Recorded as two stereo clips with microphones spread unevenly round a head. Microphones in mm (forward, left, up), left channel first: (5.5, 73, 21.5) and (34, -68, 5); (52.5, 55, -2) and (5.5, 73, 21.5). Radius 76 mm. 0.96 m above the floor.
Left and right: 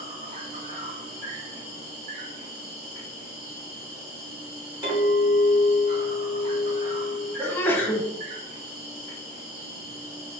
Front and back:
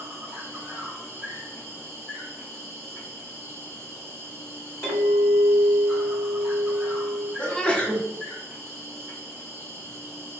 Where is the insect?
95° right, 1.0 m.